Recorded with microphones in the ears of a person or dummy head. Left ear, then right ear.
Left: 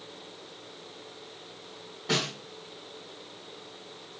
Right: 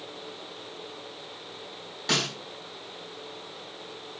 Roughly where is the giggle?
I don't hear a giggle.